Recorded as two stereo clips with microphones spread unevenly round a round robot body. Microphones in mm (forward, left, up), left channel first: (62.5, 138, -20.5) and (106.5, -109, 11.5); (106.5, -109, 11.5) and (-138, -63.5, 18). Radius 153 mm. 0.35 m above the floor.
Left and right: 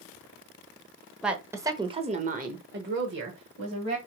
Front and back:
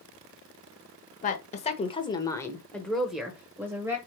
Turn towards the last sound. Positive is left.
turn(degrees=-115)